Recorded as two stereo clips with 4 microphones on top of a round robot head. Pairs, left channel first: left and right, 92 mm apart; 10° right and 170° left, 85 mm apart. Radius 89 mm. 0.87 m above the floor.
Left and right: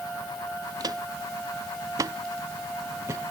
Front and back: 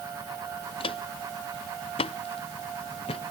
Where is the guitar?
I don't hear a guitar.